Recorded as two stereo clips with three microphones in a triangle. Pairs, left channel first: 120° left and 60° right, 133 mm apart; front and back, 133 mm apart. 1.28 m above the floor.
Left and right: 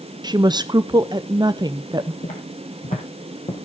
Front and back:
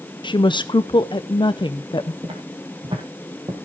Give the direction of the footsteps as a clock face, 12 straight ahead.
8 o'clock.